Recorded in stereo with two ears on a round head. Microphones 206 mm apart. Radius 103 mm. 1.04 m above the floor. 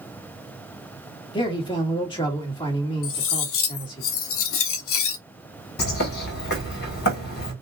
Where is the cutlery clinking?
60° left (ahead or behind), 0.7 m.